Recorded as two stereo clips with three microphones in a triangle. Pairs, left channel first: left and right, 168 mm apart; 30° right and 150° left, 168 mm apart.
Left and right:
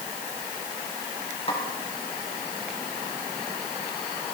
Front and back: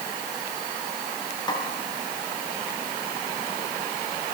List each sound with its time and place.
1.5 s a snare drum: 35° left, 3.5 m